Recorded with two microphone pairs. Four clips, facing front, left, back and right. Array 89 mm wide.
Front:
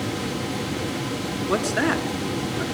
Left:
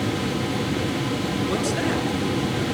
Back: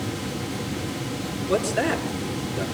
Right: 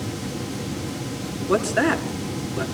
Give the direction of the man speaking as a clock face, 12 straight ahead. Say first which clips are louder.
Right 8 dB, even; 2 o'clock.